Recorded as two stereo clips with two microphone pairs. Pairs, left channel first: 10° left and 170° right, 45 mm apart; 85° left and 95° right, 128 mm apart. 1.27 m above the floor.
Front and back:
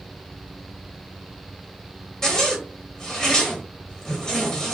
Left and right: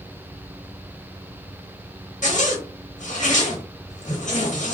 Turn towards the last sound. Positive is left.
turn(degrees=85)